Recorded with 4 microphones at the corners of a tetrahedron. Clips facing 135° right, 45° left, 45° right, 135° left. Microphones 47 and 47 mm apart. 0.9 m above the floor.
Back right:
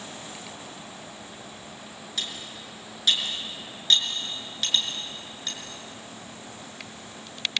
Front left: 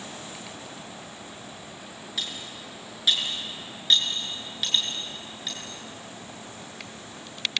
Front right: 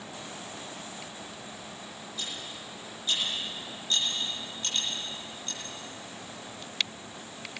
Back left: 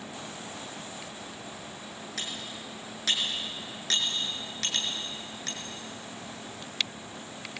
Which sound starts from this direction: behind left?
Cutlery clinking, at 2.2 s.